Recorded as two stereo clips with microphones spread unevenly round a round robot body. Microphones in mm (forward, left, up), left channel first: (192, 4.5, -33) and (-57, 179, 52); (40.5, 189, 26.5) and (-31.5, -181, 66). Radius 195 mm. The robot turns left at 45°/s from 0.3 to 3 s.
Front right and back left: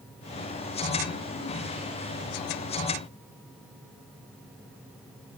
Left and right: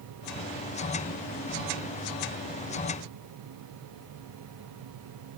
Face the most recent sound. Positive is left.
No sound to turn to.